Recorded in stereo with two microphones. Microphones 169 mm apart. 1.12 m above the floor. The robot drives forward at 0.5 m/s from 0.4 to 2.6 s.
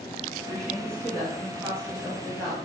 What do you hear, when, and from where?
0.5 s a woman speaking: 5° left (ahead or behind), 1.6 m